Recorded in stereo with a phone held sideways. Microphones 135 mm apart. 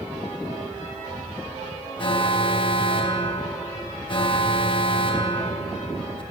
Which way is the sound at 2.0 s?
40° left (ahead or behind).